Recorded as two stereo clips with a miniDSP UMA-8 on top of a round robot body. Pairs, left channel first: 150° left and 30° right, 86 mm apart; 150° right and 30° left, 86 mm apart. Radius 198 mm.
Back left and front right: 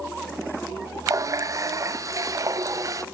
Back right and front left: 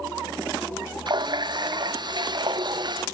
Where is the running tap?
15° left, 0.7 m.